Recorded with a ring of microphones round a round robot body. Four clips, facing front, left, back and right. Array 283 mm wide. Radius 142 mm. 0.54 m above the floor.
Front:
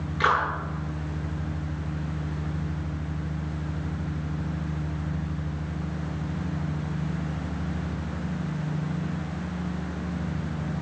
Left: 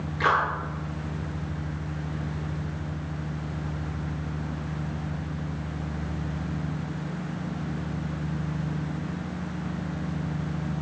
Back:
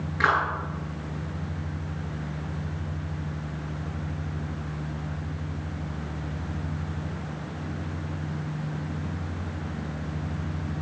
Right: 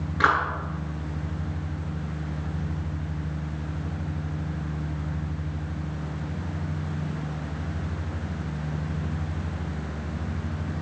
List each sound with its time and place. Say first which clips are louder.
0.2 s a clap: right 1 dB, even; 105° right, 8.5 m